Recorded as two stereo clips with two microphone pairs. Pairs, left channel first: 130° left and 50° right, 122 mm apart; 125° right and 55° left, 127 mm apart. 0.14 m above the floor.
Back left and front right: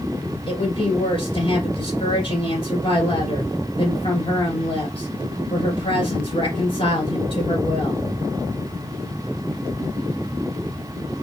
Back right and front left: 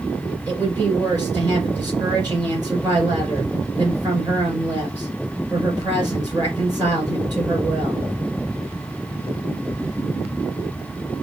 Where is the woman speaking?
105° left, 2.5 m.